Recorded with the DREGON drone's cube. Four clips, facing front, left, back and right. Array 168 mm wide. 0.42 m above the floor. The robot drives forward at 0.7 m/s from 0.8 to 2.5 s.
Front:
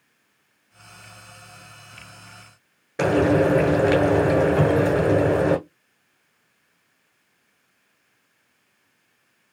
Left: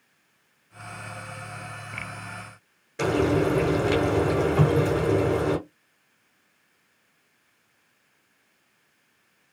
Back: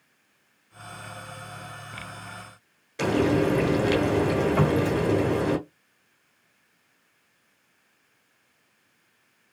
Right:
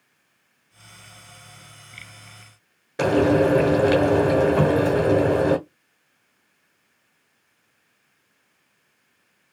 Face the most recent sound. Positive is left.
turn(degrees=-170)